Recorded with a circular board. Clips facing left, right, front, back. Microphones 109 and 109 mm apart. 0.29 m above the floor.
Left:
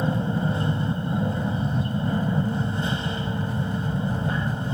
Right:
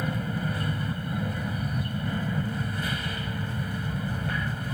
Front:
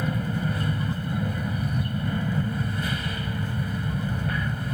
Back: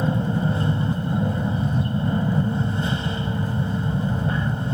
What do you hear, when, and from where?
0.0 s an aircraft: 135° left